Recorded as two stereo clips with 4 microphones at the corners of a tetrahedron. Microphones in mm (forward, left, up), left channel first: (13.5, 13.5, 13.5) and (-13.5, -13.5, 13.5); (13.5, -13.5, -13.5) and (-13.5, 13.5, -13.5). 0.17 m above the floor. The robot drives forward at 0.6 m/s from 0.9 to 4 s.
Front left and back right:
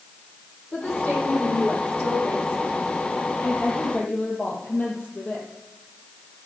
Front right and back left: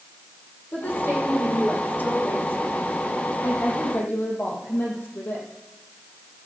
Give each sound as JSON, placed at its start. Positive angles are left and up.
{"t": 0.7, "sound": "a woman speaking", "azimuth_deg": 0, "distance_m": 6.5}